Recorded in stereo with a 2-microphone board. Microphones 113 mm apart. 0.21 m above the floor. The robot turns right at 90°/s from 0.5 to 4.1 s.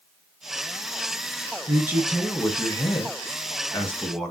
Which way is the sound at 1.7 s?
40° right.